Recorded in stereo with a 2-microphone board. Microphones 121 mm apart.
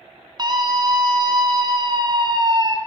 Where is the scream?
35° right (ahead or behind), 1.8 m.